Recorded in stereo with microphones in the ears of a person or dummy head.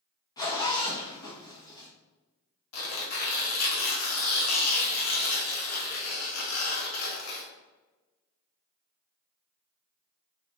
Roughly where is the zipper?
Centre.